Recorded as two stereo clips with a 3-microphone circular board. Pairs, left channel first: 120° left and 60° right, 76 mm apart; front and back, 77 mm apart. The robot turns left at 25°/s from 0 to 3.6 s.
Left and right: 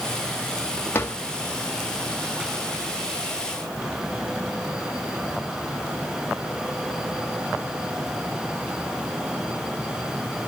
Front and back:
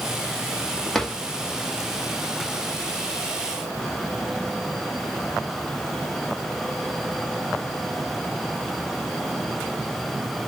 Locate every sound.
0.9 s a drawer: 85° left, 0.6 m; by 1.2 s 80° left, 0.6 m